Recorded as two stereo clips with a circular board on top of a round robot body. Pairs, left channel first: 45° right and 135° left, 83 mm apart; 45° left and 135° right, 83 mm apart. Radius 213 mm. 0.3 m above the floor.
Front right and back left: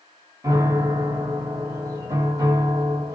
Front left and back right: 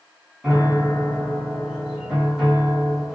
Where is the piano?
135° left, 1.9 m.